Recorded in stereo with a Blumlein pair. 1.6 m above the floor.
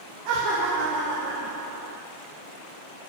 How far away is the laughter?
About 1.4 m.